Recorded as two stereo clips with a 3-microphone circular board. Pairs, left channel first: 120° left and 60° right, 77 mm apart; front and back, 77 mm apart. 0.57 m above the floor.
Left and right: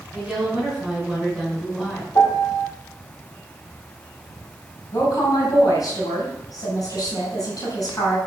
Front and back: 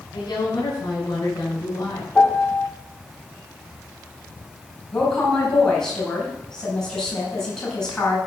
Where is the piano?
75° left, 2 m.